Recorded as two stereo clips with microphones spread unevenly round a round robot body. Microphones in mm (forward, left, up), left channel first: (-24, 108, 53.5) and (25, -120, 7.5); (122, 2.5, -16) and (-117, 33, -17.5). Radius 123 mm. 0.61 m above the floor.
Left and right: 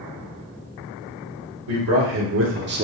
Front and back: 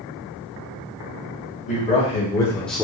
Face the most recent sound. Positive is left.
turn(degrees=-105)